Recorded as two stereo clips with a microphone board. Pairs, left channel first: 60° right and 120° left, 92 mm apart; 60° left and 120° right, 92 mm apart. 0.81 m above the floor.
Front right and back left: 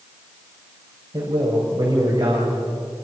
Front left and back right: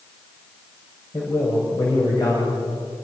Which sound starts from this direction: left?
A man speaking, at 1.1 s.